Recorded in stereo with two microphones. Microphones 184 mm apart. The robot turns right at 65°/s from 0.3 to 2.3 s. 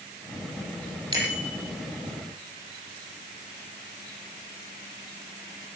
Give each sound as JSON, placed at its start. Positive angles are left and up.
{"t": 1.1, "sound": "a bicycle bell", "side_deg": -25, "distance_m": 8.5}